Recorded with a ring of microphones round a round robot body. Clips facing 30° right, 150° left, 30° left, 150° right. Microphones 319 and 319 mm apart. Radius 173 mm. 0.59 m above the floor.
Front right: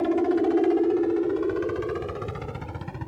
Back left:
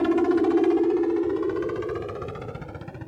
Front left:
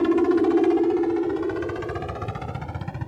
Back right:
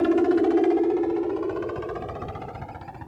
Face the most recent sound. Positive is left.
turn(degrees=45)